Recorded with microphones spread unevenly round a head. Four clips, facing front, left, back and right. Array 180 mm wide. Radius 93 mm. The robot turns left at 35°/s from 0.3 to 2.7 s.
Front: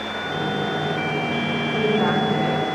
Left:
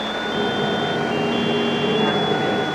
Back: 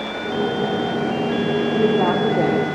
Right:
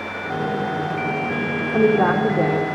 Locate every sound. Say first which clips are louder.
1.7 s a woman speaking: right 3 dB, back 1 dB; 125° right, 4.5 m; by 2.7 s 155° right, 4.5 m